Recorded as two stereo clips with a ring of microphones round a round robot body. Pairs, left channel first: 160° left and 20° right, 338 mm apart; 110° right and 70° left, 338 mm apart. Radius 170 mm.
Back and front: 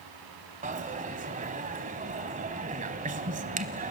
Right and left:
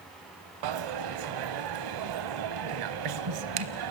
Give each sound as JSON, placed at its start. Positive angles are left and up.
{"t": 0.6, "sound": "a dropped coin", "azimuth_deg": 45, "distance_m": 1.0}